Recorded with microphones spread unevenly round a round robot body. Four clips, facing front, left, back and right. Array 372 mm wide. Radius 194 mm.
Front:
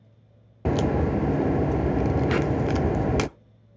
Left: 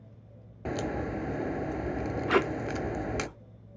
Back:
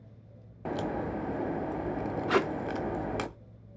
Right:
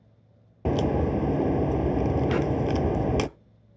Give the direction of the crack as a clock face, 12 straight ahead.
1 o'clock.